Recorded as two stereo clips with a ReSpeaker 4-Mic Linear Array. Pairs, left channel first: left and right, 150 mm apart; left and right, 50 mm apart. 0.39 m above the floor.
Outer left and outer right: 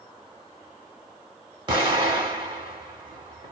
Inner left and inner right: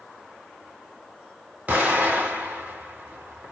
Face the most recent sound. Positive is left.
turn(degrees=-35)  # may be behind; listen again after turning